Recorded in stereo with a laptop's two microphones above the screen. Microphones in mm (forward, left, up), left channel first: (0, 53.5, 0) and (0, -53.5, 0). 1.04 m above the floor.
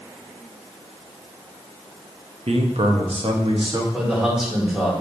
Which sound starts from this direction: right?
A man speaking, at 2.5 s.